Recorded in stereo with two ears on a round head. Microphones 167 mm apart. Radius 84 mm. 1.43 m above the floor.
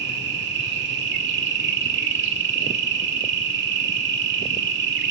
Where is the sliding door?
No sliding door in this recording.